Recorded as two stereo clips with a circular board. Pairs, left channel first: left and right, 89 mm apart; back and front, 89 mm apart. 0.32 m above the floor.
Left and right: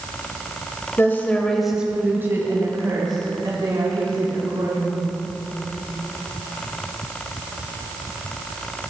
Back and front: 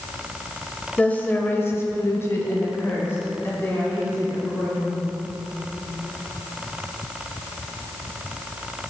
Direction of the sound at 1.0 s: 120° left.